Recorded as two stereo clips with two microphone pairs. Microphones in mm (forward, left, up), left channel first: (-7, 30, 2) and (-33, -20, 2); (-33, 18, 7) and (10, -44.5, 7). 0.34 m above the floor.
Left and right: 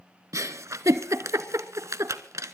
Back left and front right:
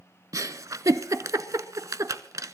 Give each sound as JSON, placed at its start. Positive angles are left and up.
{"t": 0.3, "sound": "a giggle", "azimuth_deg": -100, "distance_m": 0.8}